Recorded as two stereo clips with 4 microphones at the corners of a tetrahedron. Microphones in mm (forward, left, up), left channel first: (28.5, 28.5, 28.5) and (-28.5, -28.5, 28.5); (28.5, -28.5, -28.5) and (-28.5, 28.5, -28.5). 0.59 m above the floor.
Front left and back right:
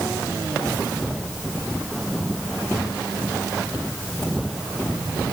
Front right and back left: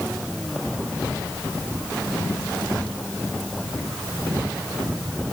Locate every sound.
Only background noise.